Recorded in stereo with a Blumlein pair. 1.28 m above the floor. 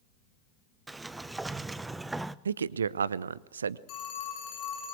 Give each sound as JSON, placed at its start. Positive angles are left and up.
{"t": 0.9, "sound": "a sliding door", "azimuth_deg": -10, "distance_m": 0.7}
{"t": 2.5, "sound": "a man speaking", "azimuth_deg": -70, "distance_m": 0.8}
{"t": 3.9, "sound": "a phone ringing", "azimuth_deg": 35, "distance_m": 8.5}